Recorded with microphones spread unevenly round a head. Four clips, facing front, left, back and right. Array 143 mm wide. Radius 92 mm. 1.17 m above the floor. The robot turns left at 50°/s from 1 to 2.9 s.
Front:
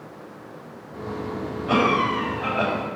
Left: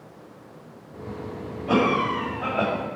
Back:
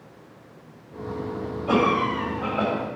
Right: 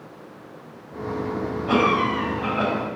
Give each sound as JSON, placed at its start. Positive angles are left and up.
{"t": 1.7, "sound": "a cough", "azimuth_deg": 165, "distance_m": 3.5}